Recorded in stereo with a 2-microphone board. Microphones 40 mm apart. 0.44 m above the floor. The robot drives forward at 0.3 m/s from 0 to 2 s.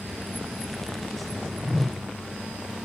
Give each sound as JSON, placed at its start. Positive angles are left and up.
{"t": 1.6, "sound": "a whoosh", "side_deg": 10, "distance_m": 2.0}